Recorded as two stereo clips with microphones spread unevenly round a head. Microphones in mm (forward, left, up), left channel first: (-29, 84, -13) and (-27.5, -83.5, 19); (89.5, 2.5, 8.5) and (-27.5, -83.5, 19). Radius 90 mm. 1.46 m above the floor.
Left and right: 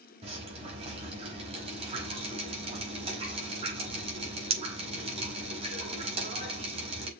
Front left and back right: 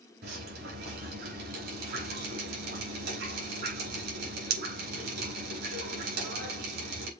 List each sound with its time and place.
0.2 s dripping: 145° right, 5 m